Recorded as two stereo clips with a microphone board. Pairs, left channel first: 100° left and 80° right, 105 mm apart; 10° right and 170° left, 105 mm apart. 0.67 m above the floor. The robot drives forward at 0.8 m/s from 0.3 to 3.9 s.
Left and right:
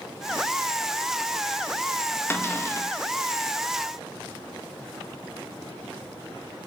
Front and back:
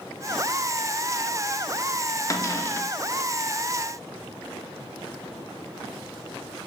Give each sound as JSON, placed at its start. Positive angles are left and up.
{"t": 2.3, "sound": "a cupboard door", "azimuth_deg": 40, "distance_m": 1.9}